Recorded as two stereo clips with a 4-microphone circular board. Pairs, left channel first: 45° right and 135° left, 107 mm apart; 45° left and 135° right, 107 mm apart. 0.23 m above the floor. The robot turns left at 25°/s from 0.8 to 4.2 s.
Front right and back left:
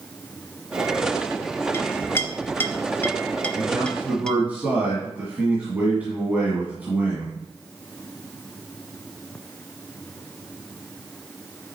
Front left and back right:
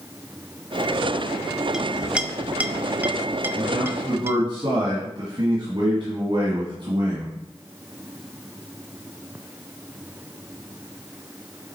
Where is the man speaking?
135° right, 1.8 m; by 7.3 s 155° right, 1.8 m.